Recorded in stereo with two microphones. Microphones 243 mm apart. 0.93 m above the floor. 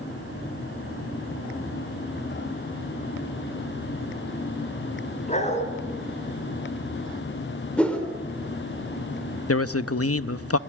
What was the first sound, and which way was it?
A dog barking, 30° left (ahead or behind).